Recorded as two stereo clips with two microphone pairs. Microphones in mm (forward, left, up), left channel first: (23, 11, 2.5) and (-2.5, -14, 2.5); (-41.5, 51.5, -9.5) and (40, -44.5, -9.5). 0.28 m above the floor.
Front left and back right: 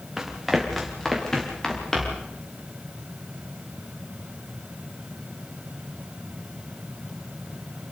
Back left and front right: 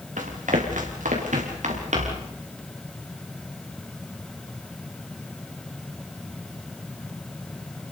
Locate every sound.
0.2 s running footsteps: 50° right, 4 m; by 2.3 s 25° right, 6.5 m